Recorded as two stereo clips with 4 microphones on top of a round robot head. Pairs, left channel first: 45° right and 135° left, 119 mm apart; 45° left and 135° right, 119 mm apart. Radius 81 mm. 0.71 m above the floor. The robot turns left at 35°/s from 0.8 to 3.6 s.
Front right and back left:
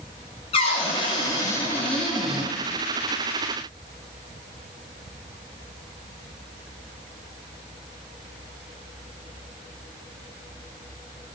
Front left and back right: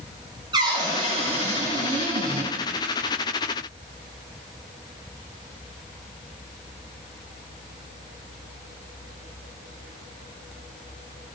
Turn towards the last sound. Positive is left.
turn(degrees=180)